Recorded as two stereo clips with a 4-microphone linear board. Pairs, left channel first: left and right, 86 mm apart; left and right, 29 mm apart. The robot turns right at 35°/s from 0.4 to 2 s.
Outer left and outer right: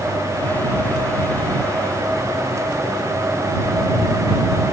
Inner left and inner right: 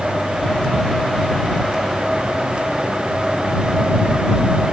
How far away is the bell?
I don't hear a bell.